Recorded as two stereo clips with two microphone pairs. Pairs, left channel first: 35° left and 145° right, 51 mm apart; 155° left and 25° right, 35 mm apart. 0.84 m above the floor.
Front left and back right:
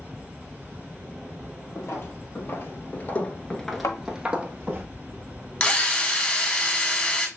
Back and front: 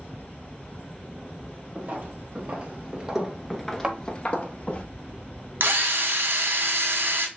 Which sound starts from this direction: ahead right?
A drill, at 5.6 s.